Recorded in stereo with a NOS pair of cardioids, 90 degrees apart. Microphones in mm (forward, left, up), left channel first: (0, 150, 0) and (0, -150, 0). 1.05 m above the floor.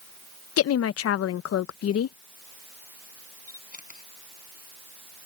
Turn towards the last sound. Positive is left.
turn(degrees=25)